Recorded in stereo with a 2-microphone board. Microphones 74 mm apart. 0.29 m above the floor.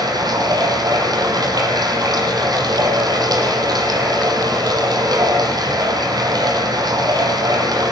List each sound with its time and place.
0.0 s running water: 60° right (ahead or behind), 8.5 m